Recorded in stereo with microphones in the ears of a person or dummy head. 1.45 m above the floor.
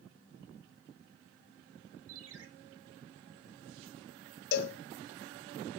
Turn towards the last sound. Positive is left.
turn(degrees=70)  # may be behind; listen again after turning